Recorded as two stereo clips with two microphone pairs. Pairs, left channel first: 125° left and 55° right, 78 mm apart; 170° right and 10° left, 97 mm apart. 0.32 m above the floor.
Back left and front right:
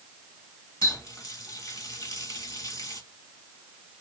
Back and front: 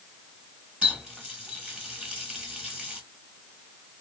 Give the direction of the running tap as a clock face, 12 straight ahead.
9 o'clock.